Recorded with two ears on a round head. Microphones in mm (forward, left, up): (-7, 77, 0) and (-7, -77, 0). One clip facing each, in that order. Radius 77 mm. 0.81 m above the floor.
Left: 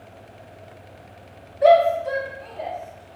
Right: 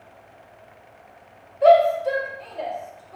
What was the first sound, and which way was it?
A shout, 10° left (ahead or behind).